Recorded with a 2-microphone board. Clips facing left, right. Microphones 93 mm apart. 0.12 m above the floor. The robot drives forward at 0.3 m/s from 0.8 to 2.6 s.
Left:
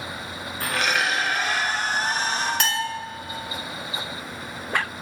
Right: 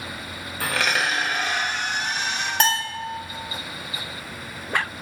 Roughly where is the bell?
Right.